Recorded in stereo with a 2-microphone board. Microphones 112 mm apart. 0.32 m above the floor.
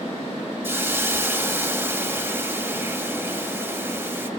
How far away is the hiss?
About 2 m.